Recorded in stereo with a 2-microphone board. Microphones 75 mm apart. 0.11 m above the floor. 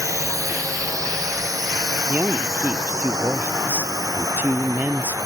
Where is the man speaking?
25° right (ahead or behind).